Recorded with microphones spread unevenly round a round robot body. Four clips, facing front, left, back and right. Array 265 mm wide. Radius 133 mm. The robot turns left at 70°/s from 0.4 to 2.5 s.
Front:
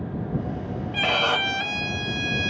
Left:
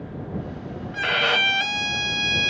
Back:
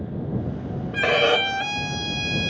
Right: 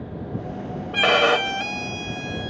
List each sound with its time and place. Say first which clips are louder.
0.9 s a violin: right 6 dB, back 5 dB; 125° right; by 2.5 s 125° left